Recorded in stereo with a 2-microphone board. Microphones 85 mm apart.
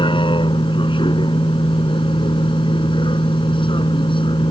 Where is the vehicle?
80° left.